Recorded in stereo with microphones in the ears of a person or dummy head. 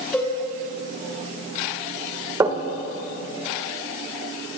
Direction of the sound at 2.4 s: 20° right (ahead or behind).